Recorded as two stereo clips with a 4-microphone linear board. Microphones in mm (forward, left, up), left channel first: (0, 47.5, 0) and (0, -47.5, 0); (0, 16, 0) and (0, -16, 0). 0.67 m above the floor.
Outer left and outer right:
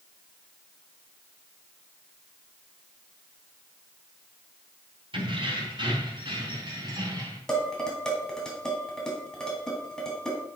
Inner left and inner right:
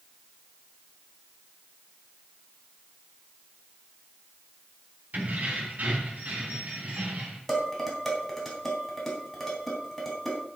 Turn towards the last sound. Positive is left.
turn(degrees=10)  # may be behind; listen again after turning